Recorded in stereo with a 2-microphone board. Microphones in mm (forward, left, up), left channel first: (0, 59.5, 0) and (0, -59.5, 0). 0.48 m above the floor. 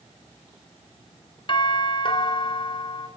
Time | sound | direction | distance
1.5 | a doorbell | 45° left (ahead or behind) | 3 m